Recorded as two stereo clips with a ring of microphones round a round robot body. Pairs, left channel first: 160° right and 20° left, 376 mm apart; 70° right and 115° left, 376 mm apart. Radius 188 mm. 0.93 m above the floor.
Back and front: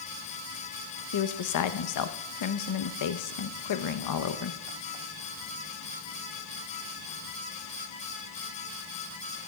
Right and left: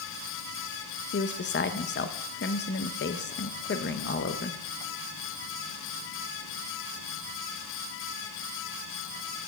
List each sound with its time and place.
1.1 s a woman speaking: 125° right, 0.8 m